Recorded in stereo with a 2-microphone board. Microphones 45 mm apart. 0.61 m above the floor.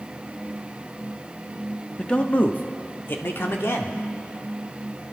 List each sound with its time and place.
2.0 s a man speaking: 20° left (ahead or behind), 0.8 m; by 4.0 s 60° left (ahead or behind), 1.5 m